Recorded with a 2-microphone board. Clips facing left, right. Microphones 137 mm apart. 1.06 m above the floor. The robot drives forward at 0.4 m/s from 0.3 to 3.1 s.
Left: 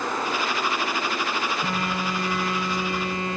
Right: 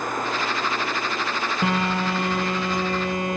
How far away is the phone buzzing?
About 0.8 m.